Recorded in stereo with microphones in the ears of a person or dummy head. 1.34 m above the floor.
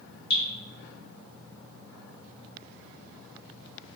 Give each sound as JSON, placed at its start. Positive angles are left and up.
{"t": 0.3, "sound": "dripping", "side_deg": 60, "distance_m": 1.9}